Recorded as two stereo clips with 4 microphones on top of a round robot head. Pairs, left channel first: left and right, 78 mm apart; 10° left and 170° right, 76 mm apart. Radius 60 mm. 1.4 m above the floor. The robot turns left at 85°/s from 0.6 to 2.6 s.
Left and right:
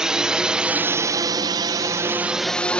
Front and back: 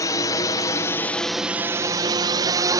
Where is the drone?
10° right; by 2.8 s 165° left.